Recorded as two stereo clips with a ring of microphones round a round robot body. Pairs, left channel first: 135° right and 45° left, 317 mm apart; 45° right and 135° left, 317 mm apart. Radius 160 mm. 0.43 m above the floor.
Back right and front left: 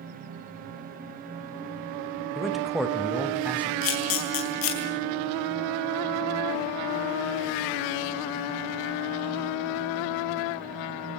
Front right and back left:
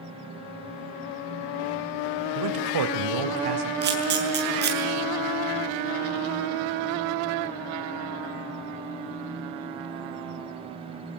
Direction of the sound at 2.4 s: 135° left.